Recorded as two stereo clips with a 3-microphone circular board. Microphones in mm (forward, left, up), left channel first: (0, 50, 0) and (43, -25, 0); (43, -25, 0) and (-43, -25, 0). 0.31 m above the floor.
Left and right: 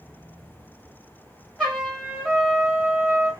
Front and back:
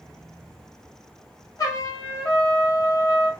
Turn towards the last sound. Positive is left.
turn(degrees=30)